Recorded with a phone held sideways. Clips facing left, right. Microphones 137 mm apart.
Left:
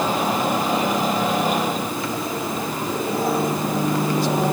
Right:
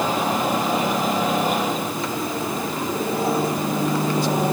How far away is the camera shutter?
No camera shutter in this recording.